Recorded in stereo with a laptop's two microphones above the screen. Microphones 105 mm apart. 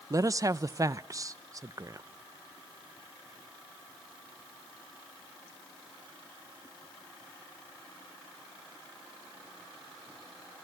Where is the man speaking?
35° right (ahead or behind), 0.7 m.